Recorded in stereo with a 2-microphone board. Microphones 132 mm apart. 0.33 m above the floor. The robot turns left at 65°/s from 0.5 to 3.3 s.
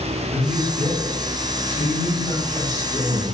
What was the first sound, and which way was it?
A man speaking, 170° right.